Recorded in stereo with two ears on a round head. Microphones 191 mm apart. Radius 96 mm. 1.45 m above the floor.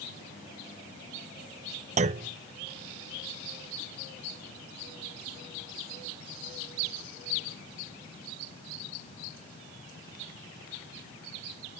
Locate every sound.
2.0 s a clunk: 35° right (ahead or behind)